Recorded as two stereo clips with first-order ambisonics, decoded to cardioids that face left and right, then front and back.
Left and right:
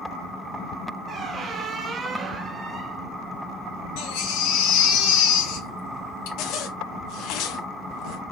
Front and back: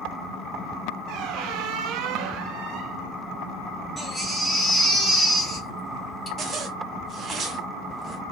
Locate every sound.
1.1 s a squeak: 150° right, 0.5 m
4.0 s a baby crying: 90° left, 1.9 m
6.4 s a zipper: 120° left, 0.9 m